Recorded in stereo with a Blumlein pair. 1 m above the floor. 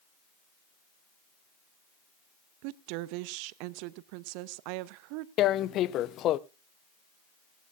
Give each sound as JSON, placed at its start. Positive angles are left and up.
{"t": 2.6, "sound": "a woman speaking", "azimuth_deg": -45, "distance_m": 0.7}
{"t": 5.4, "sound": "tearing paper", "azimuth_deg": 30, "distance_m": 0.6}